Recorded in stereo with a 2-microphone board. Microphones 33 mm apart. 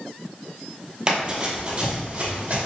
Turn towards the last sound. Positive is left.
turn(degrees=-55)  # may be behind; listen again after turning